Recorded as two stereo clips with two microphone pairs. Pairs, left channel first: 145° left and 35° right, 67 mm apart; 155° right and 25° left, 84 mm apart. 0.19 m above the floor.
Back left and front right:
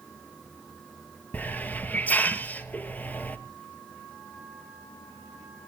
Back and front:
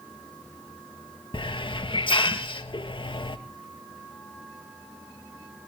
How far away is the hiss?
About 1.3 m.